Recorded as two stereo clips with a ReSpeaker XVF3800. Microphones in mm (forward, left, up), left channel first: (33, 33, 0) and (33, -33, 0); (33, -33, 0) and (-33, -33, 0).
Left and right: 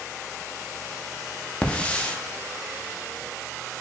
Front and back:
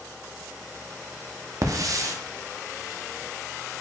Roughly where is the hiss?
Behind.